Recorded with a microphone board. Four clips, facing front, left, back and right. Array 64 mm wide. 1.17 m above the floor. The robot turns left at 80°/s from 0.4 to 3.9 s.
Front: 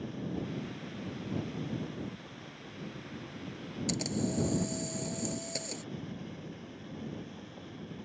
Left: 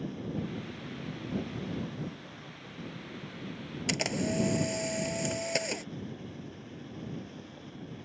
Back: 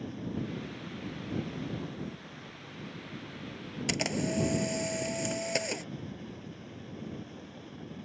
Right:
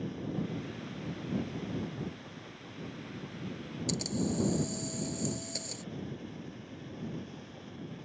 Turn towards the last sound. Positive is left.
turn(degrees=135)